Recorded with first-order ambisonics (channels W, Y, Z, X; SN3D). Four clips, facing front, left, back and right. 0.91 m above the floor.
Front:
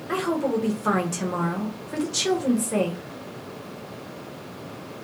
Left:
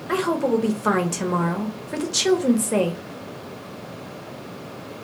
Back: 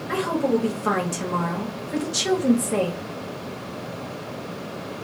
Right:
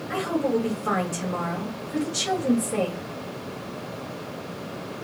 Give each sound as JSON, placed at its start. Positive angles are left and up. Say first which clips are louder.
{"t": 0.1, "sound": "a woman speaking", "louder": "left 4 dB, back 2 dB", "azimuth_deg": 95, "distance_m": 0.8}